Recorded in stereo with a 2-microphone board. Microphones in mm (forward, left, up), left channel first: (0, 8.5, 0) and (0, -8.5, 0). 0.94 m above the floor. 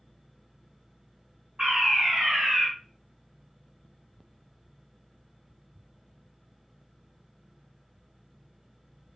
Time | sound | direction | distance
1.6 | a fire alarm | 65° right (ahead or behind) | 3.5 m